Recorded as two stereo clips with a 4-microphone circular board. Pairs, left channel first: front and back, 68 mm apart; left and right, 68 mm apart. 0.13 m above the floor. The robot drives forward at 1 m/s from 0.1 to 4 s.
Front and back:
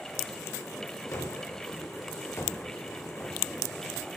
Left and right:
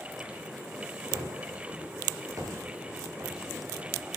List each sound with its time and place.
1.1 s a gunshot: 50° right, 8.5 m; by 3.6 s 65° right, 7.5 m